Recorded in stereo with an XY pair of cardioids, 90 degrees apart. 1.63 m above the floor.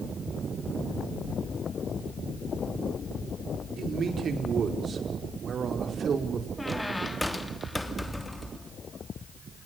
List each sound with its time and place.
3.8 s a man speaking: 55° right, 5 m
6.6 s a squeak: 10° left, 3 m